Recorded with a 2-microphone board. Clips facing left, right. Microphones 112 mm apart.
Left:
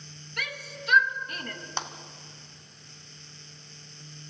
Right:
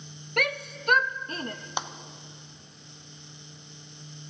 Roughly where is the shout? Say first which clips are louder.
Right 9 dB; right.